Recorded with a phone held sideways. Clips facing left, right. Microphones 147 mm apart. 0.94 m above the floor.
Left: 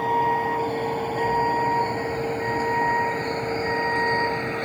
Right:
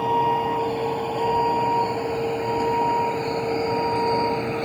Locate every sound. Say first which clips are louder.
0.0 s a vehicle: right 1 dB; 5° right (ahead or behind); by 4.7 s 15° right (ahead or behind)